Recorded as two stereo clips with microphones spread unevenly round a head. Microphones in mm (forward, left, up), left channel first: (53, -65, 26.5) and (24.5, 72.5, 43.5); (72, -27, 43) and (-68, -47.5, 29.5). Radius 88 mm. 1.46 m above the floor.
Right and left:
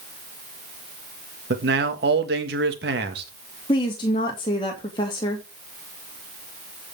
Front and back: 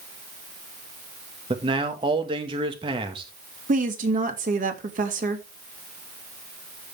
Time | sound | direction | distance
1.5 | a man speaking | 125° left | 1.8 m
3.7 | a woman speaking | 140° right | 2.5 m